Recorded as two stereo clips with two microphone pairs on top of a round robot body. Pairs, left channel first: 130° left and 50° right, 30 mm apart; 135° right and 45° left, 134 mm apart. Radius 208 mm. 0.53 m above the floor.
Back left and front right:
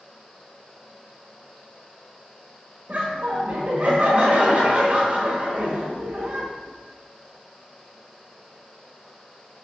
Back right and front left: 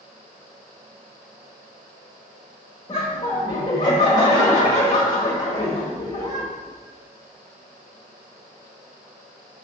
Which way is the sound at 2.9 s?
80° right.